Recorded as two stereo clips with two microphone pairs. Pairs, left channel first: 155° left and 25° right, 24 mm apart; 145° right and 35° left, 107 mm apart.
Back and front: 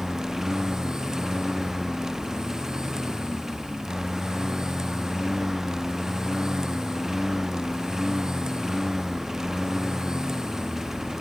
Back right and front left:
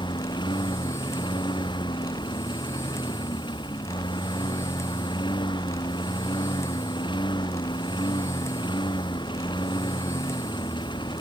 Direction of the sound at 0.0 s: 100° right.